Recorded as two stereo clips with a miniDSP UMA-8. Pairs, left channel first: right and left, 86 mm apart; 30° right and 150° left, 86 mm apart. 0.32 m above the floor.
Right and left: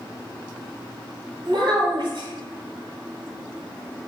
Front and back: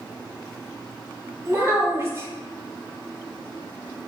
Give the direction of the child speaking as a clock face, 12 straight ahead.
9 o'clock.